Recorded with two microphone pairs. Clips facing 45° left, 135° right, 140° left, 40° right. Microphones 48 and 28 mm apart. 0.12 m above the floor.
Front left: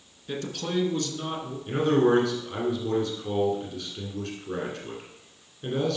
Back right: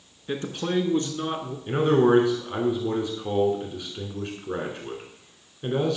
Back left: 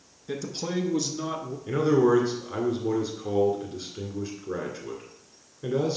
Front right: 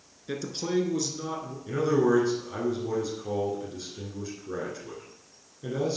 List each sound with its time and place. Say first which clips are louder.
0.3 s a man speaking: back right 3 dB, front right 1 dB; 105° right, 1.1 m; by 1.6 s 175° right, 1.3 m
1.7 s a man speaking: back right 2 dB, back left 3 dB; 170° right, 1.7 m